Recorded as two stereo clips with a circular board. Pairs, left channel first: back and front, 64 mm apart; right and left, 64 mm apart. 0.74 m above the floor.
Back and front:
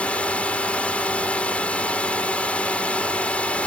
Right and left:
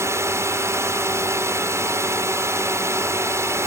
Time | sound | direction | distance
0.0 | a drone | 115° left | ?